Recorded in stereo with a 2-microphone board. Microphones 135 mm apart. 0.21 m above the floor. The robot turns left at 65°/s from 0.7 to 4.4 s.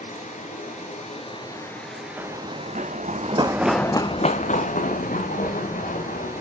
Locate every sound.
0.0 s running water: 80° left, 2.5 m; by 6.4 s 160° right, 2.5 m
2.2 s running footsteps: 10° right (ahead or behind), 1.1 m; by 6.4 s 85° left, 2.5 m